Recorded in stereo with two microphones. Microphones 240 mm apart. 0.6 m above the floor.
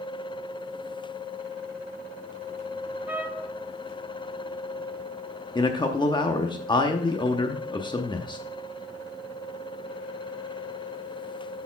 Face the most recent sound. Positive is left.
turn(degrees=20)  # may be behind; listen again after turning